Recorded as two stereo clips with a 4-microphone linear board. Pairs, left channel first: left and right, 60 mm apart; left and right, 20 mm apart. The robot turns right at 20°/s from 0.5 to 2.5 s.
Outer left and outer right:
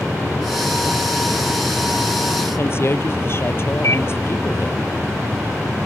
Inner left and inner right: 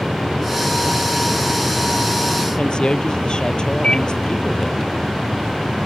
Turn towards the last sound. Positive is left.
turn(degrees=50)  # may be behind; listen again after turning